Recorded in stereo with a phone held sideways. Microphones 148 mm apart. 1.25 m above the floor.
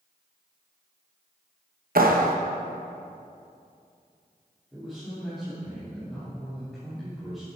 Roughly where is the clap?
Right.